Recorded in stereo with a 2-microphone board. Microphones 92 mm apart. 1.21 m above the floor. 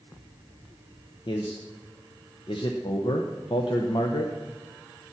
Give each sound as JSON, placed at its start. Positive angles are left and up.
{"t": 1.3, "sound": "a man speaking", "side_deg": 60, "distance_m": 0.9}